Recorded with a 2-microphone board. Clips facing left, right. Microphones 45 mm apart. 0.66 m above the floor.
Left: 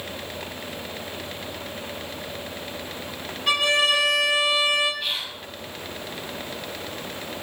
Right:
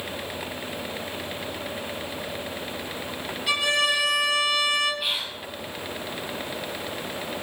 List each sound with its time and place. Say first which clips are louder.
3.5 s a violin: left 3 dB; 55° left (ahead or behind), 0.9 m
5.0 s whispering: right 1 dB; 10° right (ahead or behind), 0.8 m